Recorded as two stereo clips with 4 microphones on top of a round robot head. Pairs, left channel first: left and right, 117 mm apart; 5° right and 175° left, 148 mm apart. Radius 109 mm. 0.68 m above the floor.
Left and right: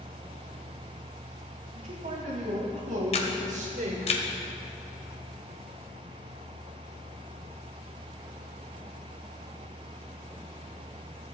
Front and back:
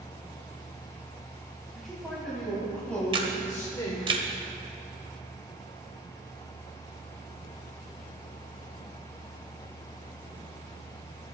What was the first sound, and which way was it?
A man speaking, 95° right.